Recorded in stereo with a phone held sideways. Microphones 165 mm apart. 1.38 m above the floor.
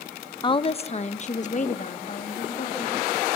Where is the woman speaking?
30° left (ahead or behind), 0.8 m; by 3.2 s 55° left (ahead or behind), 3 m.